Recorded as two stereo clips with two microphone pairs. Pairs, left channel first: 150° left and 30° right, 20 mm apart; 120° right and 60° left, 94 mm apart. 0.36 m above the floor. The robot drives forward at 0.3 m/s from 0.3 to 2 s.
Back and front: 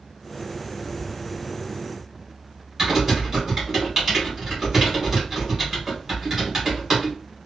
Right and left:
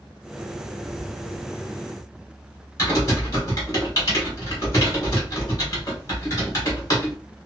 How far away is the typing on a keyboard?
About 1.9 m.